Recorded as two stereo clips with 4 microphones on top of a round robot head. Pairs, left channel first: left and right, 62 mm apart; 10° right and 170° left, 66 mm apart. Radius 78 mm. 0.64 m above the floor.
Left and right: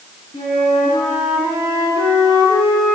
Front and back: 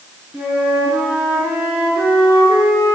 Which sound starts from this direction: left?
A flute, at 0.3 s.